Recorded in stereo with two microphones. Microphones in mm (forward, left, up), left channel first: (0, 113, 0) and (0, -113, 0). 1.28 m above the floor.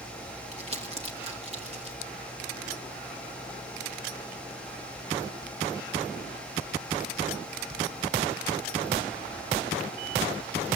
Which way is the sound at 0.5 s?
25° right (ahead or behind).